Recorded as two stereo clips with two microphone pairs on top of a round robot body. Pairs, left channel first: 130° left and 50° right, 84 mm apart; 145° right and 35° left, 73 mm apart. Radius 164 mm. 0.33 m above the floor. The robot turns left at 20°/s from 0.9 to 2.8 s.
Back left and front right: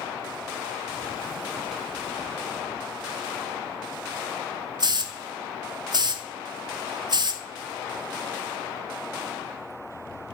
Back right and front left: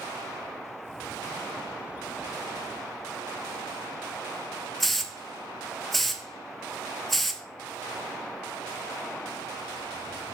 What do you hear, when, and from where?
4.8 s a hiss: 60° right, 0.6 m